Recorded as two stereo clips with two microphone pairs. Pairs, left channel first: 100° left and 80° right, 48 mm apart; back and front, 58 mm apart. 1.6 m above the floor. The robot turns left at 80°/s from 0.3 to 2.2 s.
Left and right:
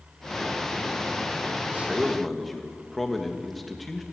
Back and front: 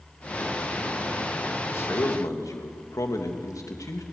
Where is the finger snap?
I don't hear a finger snap.